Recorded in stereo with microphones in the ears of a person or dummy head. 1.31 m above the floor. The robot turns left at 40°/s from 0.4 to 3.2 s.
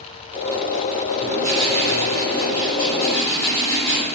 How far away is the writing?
About 1.9 m.